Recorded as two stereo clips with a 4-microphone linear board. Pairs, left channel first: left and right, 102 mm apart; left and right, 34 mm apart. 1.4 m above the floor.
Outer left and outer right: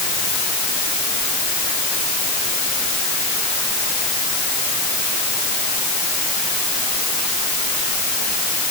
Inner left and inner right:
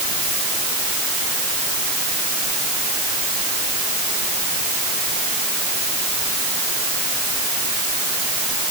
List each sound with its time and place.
Only background noise.